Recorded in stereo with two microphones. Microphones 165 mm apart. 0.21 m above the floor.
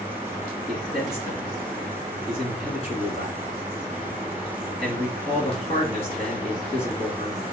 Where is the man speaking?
40° left (ahead or behind), 2 m.